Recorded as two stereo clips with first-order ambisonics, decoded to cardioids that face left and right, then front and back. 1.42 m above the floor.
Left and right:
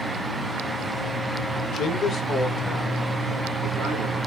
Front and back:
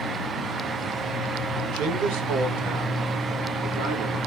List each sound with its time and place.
1.7 s a man speaking: 145° left, 1.6 m; by 4.2 s 160° right, 4 m